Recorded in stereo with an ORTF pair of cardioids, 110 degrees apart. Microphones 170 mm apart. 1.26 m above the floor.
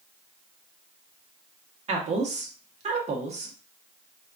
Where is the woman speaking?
40° right, 1.1 m.